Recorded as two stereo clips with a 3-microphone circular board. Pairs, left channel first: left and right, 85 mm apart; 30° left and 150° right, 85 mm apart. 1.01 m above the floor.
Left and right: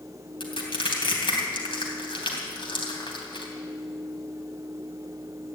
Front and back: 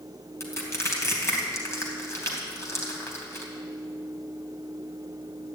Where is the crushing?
85° left, 3 m.